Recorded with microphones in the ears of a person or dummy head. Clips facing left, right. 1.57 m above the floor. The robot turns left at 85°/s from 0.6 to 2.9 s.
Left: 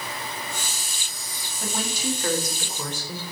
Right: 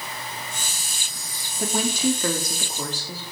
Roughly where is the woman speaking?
Ahead right.